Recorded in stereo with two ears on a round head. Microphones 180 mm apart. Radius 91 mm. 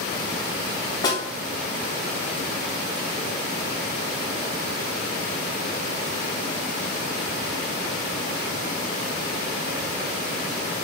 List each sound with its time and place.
1.0 s a snare drum: 20° left (ahead or behind), 4 m